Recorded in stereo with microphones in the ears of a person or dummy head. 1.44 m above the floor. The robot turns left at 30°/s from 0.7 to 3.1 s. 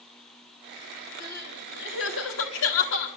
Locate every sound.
1.2 s crying: 130° left, 1.5 m; by 3.1 s 75° left, 1.5 m